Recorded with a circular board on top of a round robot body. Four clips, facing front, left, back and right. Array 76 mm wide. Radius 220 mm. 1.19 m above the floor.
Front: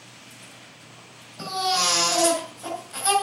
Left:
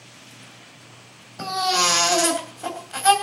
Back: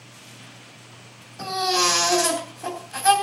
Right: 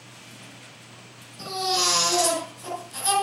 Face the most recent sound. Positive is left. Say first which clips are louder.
# left 4 dB, back 2 dB
turn(degrees=95)